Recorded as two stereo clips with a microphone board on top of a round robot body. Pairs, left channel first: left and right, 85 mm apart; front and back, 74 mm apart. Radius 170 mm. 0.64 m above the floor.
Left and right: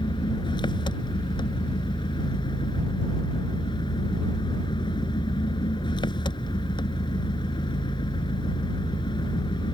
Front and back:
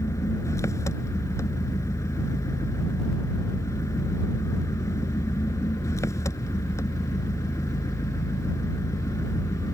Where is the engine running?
55° left.